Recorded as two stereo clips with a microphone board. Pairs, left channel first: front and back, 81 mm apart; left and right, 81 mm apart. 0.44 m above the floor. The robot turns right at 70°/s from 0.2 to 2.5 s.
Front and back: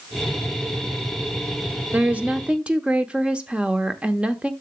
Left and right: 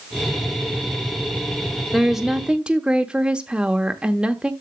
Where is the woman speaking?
175° right, 0.8 m; by 4.5 s 140° right, 0.8 m.